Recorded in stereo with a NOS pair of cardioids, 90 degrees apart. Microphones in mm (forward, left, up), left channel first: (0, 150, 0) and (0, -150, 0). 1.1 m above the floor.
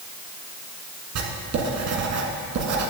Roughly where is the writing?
Ahead right.